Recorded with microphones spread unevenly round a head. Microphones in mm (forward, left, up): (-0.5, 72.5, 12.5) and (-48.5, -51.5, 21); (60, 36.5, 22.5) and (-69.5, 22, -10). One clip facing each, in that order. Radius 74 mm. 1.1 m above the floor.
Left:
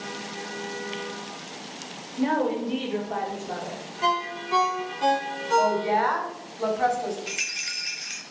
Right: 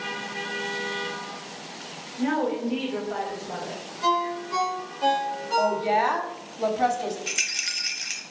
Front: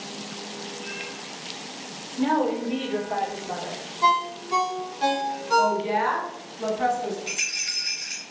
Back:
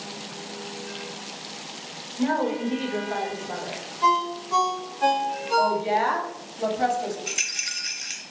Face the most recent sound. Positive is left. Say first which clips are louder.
# even, even
turn(degrees=-145)